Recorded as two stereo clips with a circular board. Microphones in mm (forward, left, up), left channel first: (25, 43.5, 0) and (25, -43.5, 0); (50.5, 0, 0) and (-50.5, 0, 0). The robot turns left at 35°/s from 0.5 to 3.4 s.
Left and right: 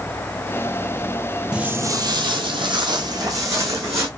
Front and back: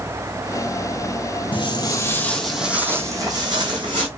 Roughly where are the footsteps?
Ahead.